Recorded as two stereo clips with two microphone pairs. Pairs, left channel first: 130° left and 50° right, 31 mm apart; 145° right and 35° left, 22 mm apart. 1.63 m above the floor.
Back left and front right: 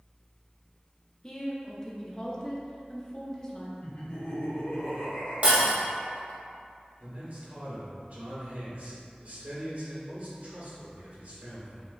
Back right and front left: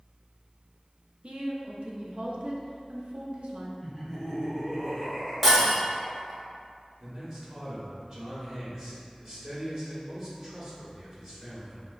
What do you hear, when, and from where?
1.2 s a woman speaking: 60° left, 0.6 m
3.8 s laughter: 135° left, 1.6 m
5.4 s breaking glass: 45° right, 1.3 m
7.0 s a man speaking: 20° right, 1.4 m